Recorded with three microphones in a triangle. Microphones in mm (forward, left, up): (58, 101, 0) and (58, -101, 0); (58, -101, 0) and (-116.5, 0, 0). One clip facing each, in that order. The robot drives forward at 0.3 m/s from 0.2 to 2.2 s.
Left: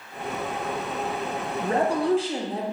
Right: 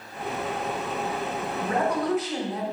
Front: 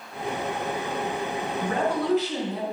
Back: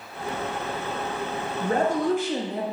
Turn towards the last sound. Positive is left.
turn(degrees=140)